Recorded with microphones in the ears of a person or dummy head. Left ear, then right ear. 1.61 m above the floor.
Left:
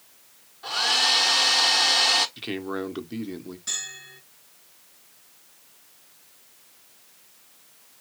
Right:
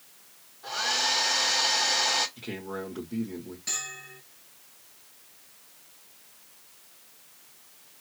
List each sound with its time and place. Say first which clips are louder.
0.6 s a hair dryer: left 5 dB; 45° left (ahead or behind), 1.1 m
2.4 s a man speaking: left 5 dB; 45° left (ahead or behind), 1.0 m
3.7 s a bell: left 2 dB; 5° right (ahead or behind), 2.5 m